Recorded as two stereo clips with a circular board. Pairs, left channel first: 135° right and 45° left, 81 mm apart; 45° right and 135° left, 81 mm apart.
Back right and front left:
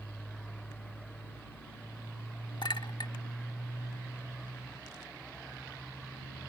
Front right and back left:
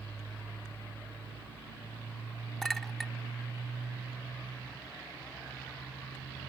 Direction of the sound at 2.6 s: 130° right.